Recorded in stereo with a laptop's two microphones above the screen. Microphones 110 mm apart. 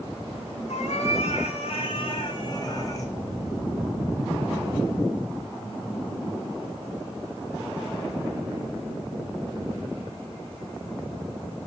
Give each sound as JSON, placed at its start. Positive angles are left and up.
{"t": 0.7, "sound": "a cat meowing", "side_deg": 80, "distance_m": 1.9}